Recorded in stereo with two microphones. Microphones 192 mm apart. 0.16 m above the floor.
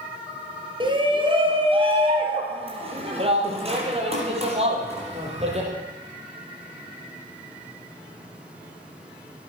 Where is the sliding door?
No sliding door in this recording.